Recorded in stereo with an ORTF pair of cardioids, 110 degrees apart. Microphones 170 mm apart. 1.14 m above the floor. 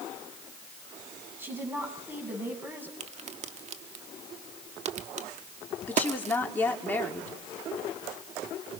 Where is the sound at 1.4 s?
10° right, 8.5 m.